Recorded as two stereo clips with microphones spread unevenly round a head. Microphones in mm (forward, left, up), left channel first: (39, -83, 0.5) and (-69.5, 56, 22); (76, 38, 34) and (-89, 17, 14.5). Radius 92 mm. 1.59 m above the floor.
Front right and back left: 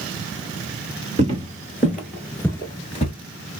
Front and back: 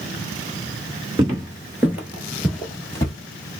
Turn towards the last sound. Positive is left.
turn(degrees=-35)